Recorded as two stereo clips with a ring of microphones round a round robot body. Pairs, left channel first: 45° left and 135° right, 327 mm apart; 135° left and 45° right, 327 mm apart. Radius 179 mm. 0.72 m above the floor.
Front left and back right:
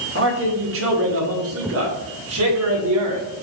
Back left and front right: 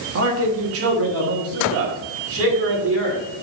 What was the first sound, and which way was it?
A man speaking, 85° right.